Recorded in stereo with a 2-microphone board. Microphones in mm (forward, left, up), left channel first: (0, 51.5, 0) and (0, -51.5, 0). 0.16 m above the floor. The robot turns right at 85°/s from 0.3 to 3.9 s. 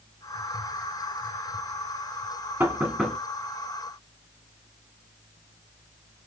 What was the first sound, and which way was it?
Knocking, 15° right (ahead or behind).